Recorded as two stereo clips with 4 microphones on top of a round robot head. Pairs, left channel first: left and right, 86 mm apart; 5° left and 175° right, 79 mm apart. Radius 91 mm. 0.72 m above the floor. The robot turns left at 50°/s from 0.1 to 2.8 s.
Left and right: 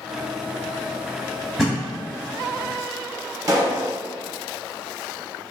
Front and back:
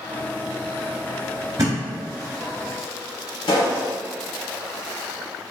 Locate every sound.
1.6 s a thud: 175° right, 0.6 m; by 1.8 s 175° left, 0.6 m
3.5 s a pop: 40° right, 1.0 m